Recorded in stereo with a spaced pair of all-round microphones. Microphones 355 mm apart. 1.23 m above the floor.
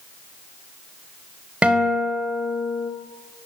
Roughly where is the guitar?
Centre.